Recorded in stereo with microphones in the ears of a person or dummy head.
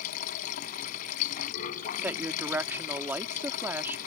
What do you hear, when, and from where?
0.0 s running water: 45° left (ahead or behind)
2.0 s a woman speaking: 10° right (ahead or behind)